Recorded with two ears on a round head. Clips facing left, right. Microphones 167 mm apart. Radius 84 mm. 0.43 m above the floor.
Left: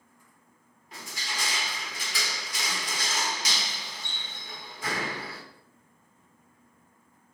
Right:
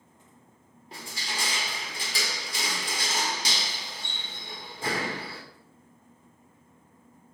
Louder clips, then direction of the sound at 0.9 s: Right 1 dB; 30° right (ahead or behind).